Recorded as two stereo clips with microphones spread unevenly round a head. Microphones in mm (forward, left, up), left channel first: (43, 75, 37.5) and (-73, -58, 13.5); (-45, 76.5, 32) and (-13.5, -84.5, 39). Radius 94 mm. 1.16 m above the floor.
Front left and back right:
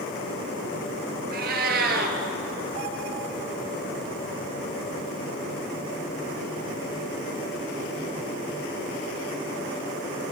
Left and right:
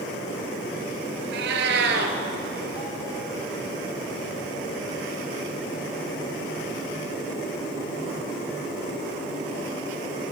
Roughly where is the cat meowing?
Right.